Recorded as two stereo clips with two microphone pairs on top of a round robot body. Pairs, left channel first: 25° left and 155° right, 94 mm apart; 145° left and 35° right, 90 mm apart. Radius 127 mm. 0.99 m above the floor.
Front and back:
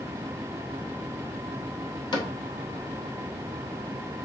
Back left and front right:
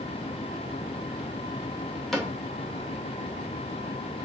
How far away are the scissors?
I don't hear scissors.